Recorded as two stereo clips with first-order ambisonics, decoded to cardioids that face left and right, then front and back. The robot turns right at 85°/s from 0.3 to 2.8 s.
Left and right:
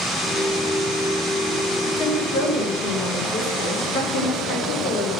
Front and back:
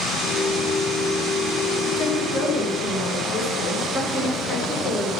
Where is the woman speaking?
30° left, 4.5 m; by 5.1 s 105° left, 4.5 m.